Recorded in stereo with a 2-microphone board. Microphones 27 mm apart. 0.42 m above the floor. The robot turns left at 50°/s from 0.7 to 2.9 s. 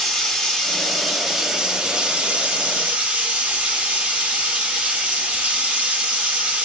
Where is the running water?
20° left, 1.0 m; by 6.7 s 90° right, 1.0 m.